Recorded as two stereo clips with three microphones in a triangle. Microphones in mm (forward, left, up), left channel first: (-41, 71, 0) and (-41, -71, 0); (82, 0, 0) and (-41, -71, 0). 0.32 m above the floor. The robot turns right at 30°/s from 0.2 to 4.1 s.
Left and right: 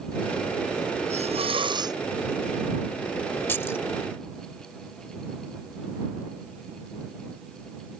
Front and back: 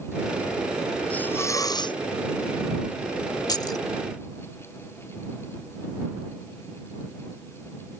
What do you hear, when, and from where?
1.1 s a hiss: 50° right; by 2.0 s 25° right
3.5 s keys jangling: 35° left; by 3.8 s 45° left